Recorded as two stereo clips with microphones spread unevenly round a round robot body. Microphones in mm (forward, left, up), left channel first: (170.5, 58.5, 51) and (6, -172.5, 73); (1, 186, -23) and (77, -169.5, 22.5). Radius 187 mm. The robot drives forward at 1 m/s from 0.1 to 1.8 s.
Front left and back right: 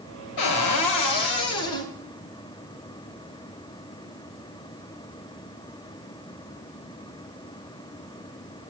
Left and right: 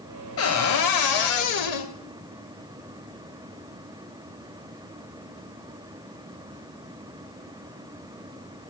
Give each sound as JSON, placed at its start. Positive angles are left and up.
{"t": 0.4, "sound": "a cupboard door", "azimuth_deg": 50, "distance_m": 1.6}